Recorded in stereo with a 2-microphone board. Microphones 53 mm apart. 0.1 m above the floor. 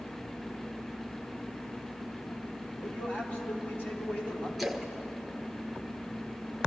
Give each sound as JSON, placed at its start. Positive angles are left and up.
{"t": 2.8, "sound": "a man speaking", "side_deg": 40, "distance_m": 3.0}
{"t": 4.6, "sound": "a splash", "side_deg": 0, "distance_m": 1.1}